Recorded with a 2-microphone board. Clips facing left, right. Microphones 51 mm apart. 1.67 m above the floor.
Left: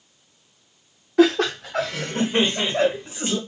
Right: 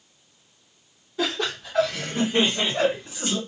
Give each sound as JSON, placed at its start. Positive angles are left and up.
{"t": 1.2, "sound": "laughter", "side_deg": 65, "distance_m": 0.7}